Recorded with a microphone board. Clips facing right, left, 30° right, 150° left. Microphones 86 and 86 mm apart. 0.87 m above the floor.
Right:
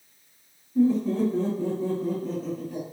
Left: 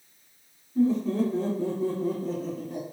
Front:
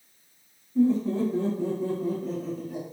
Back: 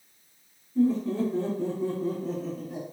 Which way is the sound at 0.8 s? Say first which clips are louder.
Right 2 dB, front 2 dB; 40° right.